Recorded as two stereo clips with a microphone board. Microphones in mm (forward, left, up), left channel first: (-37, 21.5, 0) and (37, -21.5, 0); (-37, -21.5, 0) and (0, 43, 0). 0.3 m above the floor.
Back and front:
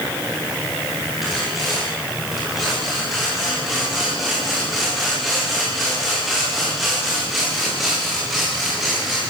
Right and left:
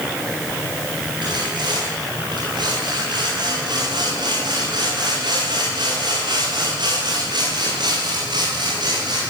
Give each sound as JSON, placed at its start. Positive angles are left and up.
{"t": 1.2, "sound": "sawing", "azimuth_deg": 60, "distance_m": 9.5}